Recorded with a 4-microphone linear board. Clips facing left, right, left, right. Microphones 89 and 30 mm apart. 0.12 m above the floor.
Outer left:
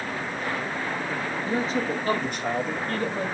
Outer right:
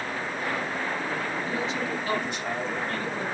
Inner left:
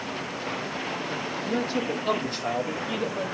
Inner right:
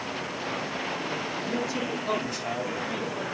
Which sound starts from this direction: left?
A man speaking, at 1.4 s.